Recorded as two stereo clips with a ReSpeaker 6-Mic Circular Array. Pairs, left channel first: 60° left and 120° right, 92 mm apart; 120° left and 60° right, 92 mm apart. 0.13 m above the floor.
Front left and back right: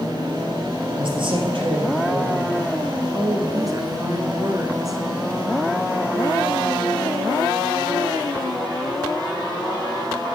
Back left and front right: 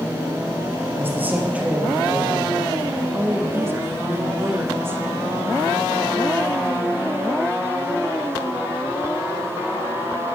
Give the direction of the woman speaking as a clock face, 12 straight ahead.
4 o'clock.